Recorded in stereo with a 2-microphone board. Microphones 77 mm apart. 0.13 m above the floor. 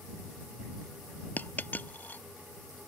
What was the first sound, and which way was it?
A dropped coin, 25° left (ahead or behind).